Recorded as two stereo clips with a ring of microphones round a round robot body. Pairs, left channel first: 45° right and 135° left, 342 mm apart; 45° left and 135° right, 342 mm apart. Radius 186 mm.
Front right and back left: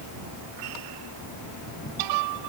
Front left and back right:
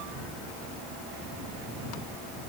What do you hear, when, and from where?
Only background noise.